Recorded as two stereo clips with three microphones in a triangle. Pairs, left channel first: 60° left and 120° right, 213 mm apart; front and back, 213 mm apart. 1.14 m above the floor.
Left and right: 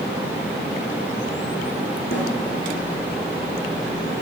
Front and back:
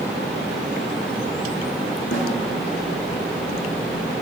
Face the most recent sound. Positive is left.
turn(degrees=25)